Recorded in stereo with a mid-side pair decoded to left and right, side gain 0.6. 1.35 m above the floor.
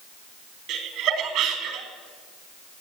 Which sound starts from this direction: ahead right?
Laughter, at 0.7 s.